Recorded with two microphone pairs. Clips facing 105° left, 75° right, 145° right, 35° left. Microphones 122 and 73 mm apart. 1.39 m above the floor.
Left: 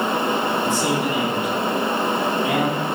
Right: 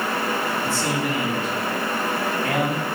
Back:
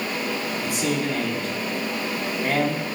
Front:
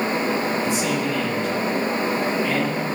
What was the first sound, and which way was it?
A man speaking, straight behind.